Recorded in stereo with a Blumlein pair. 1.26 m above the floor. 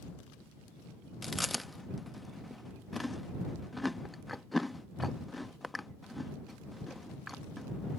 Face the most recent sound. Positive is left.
turn(degrees=5)